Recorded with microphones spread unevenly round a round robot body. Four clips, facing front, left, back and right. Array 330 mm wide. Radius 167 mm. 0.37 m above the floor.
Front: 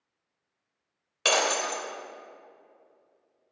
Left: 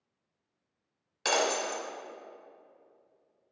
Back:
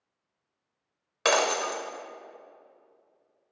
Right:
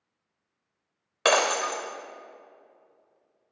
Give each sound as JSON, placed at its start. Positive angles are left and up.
{"t": 1.2, "sound": "breaking glass", "azimuth_deg": -100, "distance_m": 1.0}